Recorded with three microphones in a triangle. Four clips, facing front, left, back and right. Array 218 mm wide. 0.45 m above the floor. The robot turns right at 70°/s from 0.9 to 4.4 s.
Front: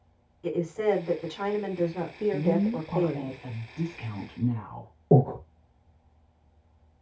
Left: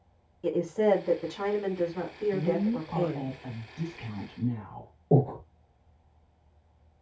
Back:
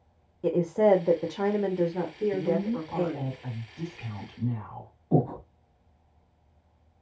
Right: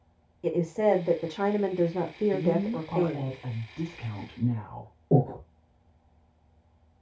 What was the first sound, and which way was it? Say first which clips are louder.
A woman speaking: right 1 dB, back 4 dB; 170° right.